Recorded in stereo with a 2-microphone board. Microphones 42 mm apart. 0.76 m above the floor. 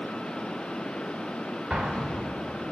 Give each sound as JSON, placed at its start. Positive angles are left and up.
{"t": 1.7, "sound": "an explosion", "side_deg": -20, "distance_m": 0.8}